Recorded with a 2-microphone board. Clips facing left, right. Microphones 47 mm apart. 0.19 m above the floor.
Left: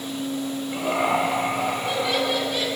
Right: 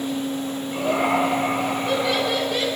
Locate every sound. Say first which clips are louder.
0.7 s laughter: right 2 dB; 15° left (ahead or behind), 3 m; by 2.7 s 15° right (ahead or behind), 2.5 m